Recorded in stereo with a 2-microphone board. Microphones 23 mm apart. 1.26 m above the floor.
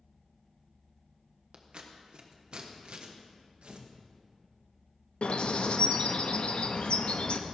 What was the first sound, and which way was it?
Scissors, 45° right (ahead or behind).